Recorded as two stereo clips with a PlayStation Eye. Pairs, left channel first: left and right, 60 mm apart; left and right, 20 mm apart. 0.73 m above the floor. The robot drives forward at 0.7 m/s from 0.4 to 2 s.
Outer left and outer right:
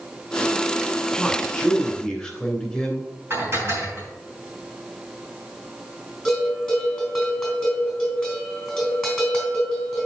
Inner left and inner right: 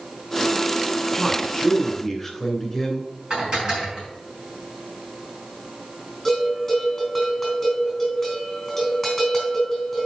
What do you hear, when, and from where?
1.2 s a man speaking: 10° left (ahead or behind), 2.5 m; by 3.1 s 5° left (ahead or behind), 3 m
3.3 s dishes clattering: 40° right (ahead or behind), 4.5 m
6.2 s a bell: 5° left (ahead or behind), 3.5 m